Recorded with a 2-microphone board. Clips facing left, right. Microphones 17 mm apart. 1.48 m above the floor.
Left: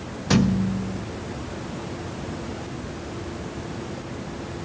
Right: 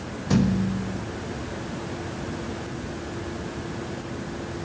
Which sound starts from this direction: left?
A thud, at 0.3 s.